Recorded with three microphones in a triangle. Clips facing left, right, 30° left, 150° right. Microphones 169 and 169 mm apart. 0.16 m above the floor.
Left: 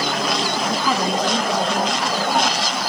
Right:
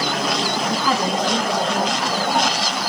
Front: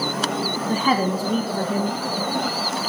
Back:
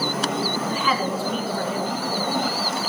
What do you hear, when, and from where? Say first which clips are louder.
0.7 s a woman speaking: even, front 3 dB; 10° left, 1.4 m